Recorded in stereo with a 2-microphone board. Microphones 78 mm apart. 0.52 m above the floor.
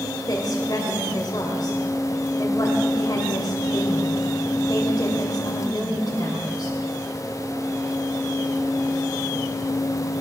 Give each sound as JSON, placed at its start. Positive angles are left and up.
{"t": 0.3, "sound": "a woman speaking", "side_deg": 55, "distance_m": 1.9}